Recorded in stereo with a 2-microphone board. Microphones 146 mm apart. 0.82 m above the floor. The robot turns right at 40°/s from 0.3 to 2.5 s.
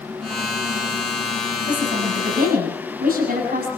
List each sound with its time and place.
1.7 s a woman speaking: 125° right, 7.5 m; by 3.7 s 90° right, 7.5 m